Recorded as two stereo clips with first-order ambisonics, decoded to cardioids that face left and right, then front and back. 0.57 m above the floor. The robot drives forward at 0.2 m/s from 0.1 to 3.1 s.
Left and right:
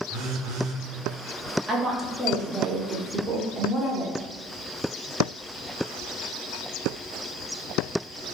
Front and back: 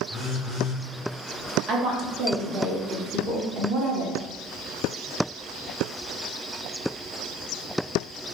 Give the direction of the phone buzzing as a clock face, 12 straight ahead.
3 o'clock.